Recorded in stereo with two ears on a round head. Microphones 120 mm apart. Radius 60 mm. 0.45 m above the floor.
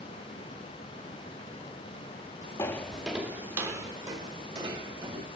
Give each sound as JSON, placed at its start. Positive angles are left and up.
{"t": 2.6, "sound": "footsteps", "side_deg": 20, "distance_m": 0.6}